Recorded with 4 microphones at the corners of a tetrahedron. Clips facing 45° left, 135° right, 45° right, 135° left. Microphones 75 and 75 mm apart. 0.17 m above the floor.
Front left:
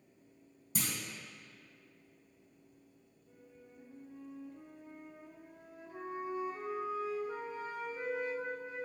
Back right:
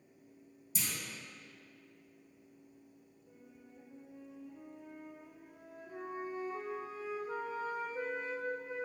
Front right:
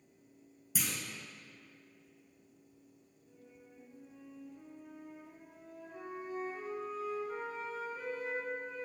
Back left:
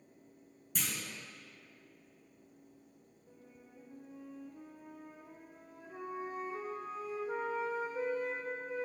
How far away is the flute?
About 1.2 m.